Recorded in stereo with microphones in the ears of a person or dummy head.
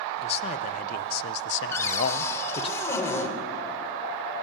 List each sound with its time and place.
0.2 s a man speaking: 35° left (ahead or behind), 1.5 m; by 2.7 s 30° left (ahead or behind), 1.2 m
1.7 s a cupboard door: 15° left (ahead or behind), 3.5 m